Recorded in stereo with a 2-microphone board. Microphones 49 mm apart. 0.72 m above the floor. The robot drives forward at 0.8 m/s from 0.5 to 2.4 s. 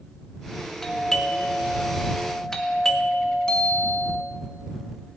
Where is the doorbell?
10° left (ahead or behind), 1.6 m.